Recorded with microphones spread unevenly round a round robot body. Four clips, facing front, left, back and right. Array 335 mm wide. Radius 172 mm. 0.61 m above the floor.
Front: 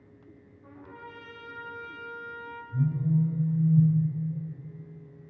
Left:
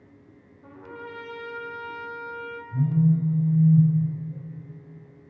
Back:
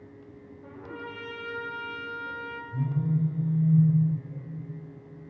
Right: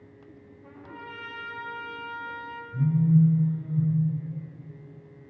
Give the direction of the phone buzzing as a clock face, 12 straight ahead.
9 o'clock.